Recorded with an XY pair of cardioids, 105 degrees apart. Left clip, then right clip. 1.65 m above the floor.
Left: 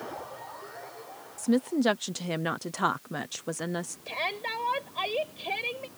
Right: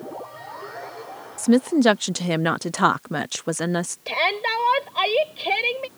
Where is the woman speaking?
55° right.